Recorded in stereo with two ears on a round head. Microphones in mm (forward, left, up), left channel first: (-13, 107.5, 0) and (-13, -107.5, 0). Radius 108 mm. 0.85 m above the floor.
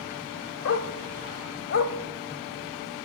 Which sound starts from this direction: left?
A dog barking, at 0.7 s.